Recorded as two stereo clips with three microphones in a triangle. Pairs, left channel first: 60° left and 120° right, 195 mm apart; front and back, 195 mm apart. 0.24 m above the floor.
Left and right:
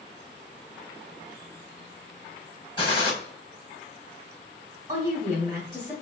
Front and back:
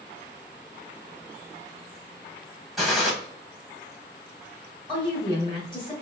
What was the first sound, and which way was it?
A gunshot, 90° left.